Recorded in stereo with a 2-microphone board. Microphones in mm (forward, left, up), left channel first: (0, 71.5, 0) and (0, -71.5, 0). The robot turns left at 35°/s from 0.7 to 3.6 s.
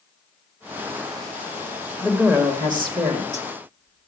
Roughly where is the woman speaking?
Ahead.